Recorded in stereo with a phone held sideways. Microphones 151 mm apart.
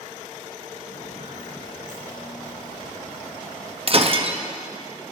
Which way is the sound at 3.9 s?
45° right (ahead or behind).